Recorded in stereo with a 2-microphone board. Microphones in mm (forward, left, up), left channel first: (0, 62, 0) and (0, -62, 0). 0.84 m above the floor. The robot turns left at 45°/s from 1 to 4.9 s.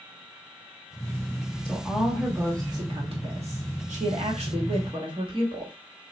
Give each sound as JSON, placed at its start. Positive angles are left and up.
{"t": 1.6, "sound": "a woman speaking", "azimuth_deg": 10, "distance_m": 1.1}